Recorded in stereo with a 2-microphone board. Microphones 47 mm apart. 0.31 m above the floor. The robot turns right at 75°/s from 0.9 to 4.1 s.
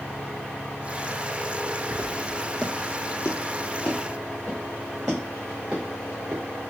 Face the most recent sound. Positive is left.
turn(degrees=-25)  # may be behind; listen again after turning